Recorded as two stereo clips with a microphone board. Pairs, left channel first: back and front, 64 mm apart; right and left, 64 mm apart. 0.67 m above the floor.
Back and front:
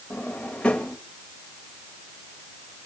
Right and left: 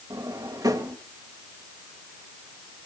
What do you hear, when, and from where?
0.1 s a drawer: 105° left, 1.8 m